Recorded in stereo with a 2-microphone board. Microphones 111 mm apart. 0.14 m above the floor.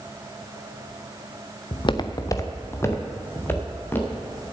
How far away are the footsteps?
About 0.8 m.